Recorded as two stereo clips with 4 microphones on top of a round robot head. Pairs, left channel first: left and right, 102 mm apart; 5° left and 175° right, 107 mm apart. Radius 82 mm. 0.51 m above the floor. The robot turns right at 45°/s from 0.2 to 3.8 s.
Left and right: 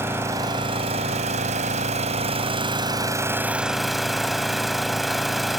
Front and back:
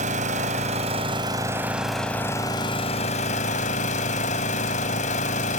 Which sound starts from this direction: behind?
An engine running, at 0.0 s.